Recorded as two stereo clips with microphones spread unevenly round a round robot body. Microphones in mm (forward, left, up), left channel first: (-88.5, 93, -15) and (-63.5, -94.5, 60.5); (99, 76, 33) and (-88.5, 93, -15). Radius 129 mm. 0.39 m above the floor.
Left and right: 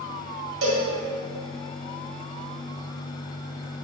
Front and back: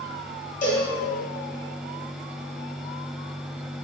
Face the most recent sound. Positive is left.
turn(degrees=-70)